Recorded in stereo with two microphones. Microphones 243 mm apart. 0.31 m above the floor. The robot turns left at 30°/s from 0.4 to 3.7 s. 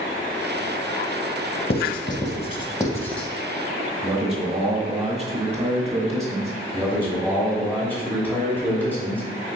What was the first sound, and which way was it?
Writing, 45° left (ahead or behind).